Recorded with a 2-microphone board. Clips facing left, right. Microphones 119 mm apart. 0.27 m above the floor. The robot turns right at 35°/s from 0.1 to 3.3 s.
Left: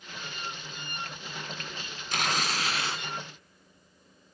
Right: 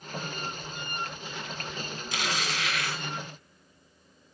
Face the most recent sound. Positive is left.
turn(degrees=165)